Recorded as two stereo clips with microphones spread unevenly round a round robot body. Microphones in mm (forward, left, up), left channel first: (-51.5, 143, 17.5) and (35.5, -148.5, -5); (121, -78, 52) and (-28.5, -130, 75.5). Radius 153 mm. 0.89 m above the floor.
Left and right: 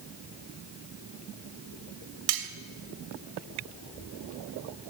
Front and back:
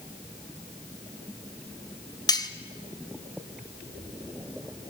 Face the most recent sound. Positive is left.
turn(degrees=-45)